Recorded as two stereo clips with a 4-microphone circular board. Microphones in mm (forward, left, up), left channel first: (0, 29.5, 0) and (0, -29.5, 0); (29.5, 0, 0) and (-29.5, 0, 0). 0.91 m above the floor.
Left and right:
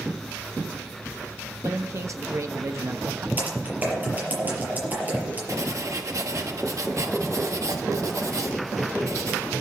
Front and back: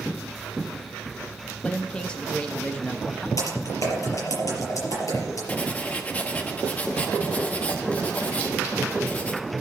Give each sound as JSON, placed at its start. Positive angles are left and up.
{"t": 1.6, "sound": "a man speaking", "azimuth_deg": -70, "distance_m": 1.0}
{"t": 3.4, "sound": "typing on a keyboard", "azimuth_deg": -25, "distance_m": 5.5}
{"t": 5.5, "sound": "writing", "azimuth_deg": -65, "distance_m": 1.1}